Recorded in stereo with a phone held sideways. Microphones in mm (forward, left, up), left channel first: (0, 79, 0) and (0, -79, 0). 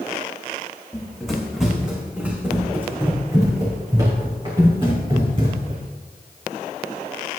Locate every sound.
0.9 s running footsteps: 5° left (ahead or behind), 3.5 m; by 5.8 s 35° right (ahead or behind), 4.5 m